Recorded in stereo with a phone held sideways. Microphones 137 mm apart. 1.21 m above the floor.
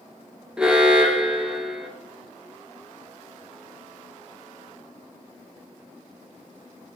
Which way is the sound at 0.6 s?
5° right (ahead or behind).